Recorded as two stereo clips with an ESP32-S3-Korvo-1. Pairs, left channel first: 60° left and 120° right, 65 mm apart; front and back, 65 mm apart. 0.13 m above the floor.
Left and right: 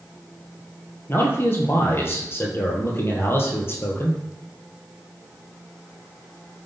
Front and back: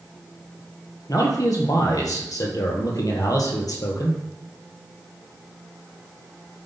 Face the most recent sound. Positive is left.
turn(degrees=10)